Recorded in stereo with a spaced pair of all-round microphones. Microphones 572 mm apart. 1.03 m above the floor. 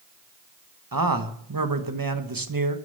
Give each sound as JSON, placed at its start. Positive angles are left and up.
{"t": 0.9, "sound": "a man speaking", "side_deg": -35, "distance_m": 1.2}